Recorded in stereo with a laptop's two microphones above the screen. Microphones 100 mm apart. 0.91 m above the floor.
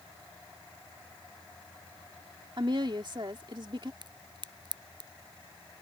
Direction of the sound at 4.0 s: 50° right (ahead or behind).